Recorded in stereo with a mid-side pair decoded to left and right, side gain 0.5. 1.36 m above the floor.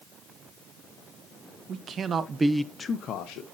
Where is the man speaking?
55° right, 1.5 m; by 3.4 s 75° left, 1.2 m.